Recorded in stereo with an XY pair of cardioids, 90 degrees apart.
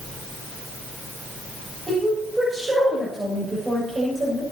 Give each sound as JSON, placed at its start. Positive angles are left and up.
{"t": 1.9, "sound": "a woman speaking", "azimuth_deg": -20, "distance_m": 9.0}